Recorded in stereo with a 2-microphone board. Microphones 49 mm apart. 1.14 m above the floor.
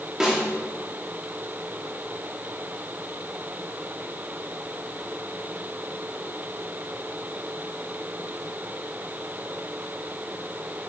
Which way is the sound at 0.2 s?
10° right (ahead or behind).